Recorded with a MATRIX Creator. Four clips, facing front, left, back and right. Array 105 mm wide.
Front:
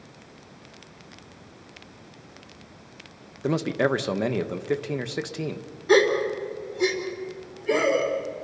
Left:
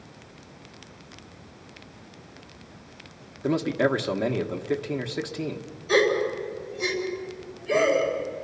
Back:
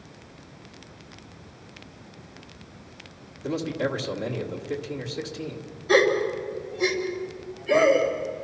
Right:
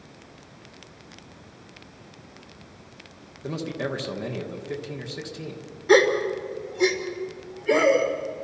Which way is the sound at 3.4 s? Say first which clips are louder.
Left 7 dB, front 4 dB; 25° left.